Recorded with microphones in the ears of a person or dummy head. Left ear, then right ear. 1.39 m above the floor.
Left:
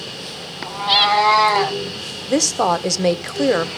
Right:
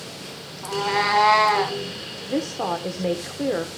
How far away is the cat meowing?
About 1.9 m.